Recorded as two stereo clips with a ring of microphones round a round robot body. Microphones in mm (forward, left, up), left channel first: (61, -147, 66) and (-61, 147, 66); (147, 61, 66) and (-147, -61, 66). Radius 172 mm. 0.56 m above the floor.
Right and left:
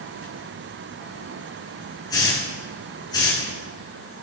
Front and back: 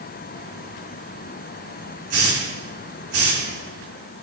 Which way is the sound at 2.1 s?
145° right.